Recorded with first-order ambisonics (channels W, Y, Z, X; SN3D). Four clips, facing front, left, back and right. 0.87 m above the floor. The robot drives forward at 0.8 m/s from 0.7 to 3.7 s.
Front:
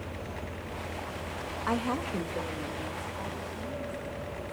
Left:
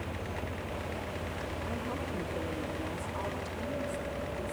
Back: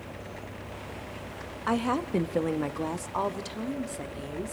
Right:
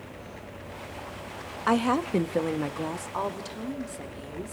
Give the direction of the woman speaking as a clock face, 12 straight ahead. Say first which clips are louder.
Right 17 dB, back 4 dB; 3 o'clock.